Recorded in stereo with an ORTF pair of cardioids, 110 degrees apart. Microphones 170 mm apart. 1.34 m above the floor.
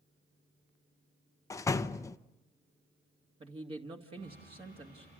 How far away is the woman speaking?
About 2.5 m.